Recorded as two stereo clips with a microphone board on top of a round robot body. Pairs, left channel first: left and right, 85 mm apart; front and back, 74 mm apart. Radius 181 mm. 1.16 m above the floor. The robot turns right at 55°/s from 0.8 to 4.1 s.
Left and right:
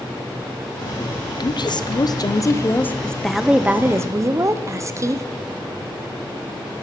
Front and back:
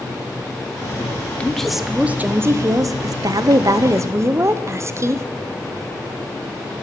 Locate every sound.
1.4 s a woman speaking: 75° left, 0.9 m; by 5.2 s 135° right, 0.9 m